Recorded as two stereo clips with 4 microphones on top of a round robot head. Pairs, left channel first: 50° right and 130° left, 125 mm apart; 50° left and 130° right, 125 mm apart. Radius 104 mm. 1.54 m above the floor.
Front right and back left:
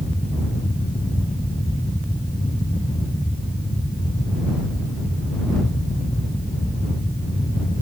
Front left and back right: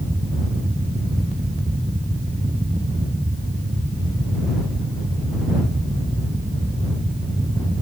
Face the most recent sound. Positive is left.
No sound to turn to.